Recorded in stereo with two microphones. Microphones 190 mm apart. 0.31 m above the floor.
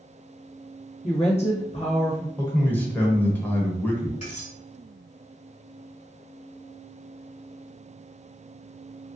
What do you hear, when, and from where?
1.0 s a woman speaking: 35° left (ahead or behind), 1.0 m
2.4 s a man speaking: 10° left (ahead or behind), 0.9 m
4.2 s cutlery clinking: 40° left (ahead or behind), 1.6 m